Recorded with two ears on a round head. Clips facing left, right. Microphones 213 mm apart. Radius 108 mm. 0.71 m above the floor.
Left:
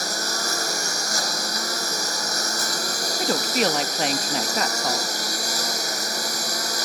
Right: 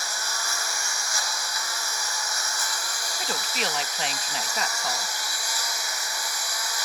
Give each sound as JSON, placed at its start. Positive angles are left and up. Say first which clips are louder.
{"t": 0.0, "sound": "a lawn mower", "louder": "left 8 dB", "side_deg": 40}
{"t": 3.2, "sound": "a woman speaking", "louder": "left 9 dB", "side_deg": 40}